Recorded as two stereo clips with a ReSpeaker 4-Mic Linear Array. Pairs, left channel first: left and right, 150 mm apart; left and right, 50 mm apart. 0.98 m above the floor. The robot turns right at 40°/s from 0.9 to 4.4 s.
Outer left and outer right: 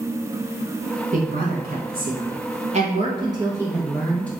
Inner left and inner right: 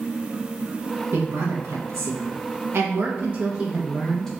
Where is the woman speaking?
115° right, 0.8 m; by 4.3 s 10° left, 0.8 m.